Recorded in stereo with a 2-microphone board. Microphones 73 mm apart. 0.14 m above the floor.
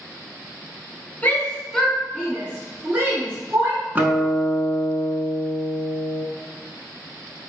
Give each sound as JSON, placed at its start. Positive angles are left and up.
{"t": 1.2, "sound": "a shout", "side_deg": 20, "distance_m": 1.1}
{"t": 4.0, "sound": "a guitar", "side_deg": -30, "distance_m": 0.7}